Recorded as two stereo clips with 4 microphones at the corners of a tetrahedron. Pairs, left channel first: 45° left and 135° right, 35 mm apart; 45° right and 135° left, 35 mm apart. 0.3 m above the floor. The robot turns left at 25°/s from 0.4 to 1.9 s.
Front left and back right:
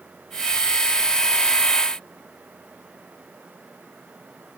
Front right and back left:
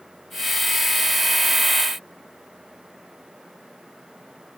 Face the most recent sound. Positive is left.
No sound to turn to.